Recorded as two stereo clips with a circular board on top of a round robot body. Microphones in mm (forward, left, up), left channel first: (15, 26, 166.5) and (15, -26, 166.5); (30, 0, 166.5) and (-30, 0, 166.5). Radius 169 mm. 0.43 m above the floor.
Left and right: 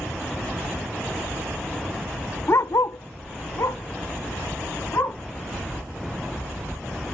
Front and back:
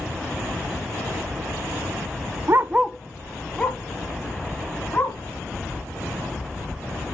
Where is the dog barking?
135° left, 0.6 m; by 5.2 s 60° left, 3.5 m.